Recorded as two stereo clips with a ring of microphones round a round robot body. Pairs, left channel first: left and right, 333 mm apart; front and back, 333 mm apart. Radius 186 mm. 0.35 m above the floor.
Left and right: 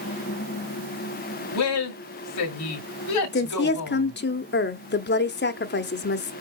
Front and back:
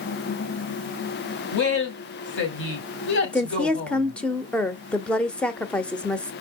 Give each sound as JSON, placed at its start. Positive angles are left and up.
{"t": 1.5, "sound": "a woman speaking", "azimuth_deg": 55, "distance_m": 2.0}
{"t": 3.3, "sound": "a woman speaking", "azimuth_deg": 85, "distance_m": 1.1}